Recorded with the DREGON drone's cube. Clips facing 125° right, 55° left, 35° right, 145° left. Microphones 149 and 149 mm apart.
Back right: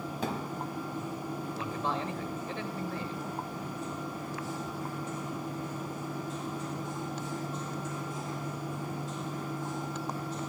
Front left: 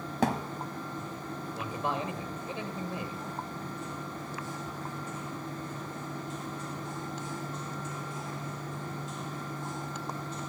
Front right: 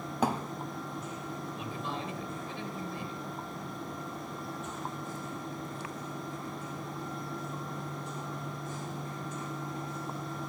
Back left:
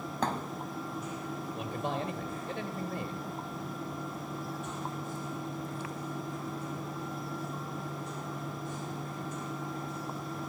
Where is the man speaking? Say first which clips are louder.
Front left 2 dB, back left 6 dB; 130° left, 2 m.